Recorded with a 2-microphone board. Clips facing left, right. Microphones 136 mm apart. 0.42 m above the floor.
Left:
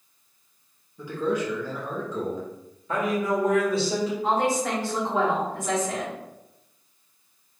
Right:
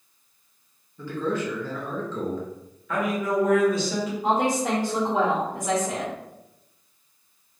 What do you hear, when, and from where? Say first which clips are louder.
1.0 s a man speaking: left 1 dB; 15° left (ahead or behind), 0.7 m
2.9 s a man speaking: even; 30° left (ahead or behind), 1.1 m
4.2 s a woman speaking: right 3 dB; 15° right (ahead or behind), 1.2 m